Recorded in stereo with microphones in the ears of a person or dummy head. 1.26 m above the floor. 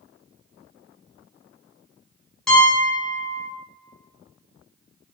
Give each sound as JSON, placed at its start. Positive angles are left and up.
{"t": 2.5, "sound": "a piano", "side_deg": 5, "distance_m": 1.2}